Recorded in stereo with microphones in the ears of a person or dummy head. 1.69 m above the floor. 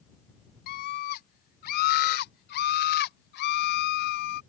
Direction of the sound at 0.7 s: 50° left (ahead or behind).